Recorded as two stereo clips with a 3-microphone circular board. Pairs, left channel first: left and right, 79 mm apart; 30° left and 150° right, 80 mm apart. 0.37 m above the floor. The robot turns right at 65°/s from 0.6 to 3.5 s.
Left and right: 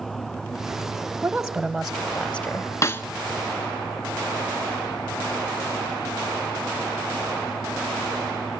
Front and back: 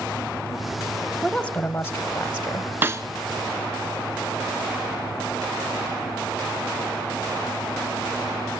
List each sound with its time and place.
1.2 s a woman speaking: 35° right, 0.9 m; by 2.7 s 60° left, 0.9 m
2.8 s a snare drum: 145° left, 0.9 m; by 3.0 s 160° left, 0.9 m